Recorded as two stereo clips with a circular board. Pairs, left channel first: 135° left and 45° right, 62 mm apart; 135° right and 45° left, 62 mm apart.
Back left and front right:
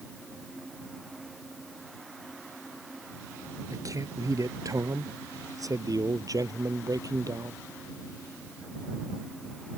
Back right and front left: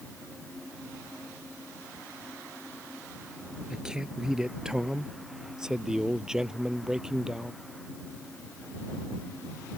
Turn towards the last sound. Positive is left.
turn(degrees=-35)